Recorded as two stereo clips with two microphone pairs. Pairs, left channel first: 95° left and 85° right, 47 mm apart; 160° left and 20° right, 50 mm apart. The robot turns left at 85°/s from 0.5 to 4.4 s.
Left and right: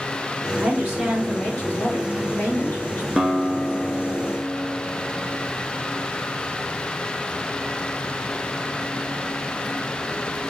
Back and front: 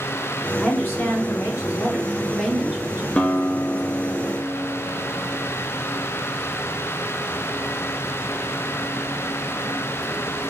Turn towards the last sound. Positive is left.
turn(degrees=85)